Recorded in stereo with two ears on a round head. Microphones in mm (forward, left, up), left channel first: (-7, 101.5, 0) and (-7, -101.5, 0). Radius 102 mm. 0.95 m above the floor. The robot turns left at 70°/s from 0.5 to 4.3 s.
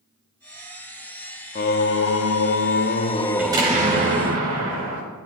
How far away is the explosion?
About 5.5 m.